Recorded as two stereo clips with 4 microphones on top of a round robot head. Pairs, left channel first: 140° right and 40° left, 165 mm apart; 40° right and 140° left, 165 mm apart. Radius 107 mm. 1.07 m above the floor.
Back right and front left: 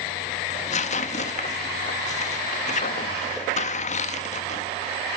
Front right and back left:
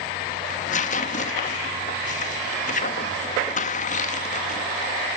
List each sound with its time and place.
0.5 s tearing paper: 90° right, 0.8 m